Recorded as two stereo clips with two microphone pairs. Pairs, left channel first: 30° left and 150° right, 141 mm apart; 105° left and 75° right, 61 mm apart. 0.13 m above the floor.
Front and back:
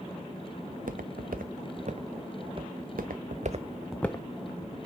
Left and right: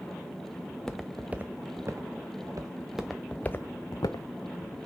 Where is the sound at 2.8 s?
155° right, 1.1 m; by 4.8 s 75° left, 1.1 m.